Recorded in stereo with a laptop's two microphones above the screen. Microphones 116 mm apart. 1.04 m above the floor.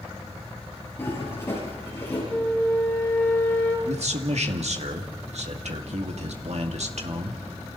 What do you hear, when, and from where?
1.0 s a toilet flushing: 20° left (ahead or behind), 9 m
2.3 s a flute: 15° left (ahead or behind), 2.5 m
3.9 s a man speaking: 70° right (ahead or behind), 2 m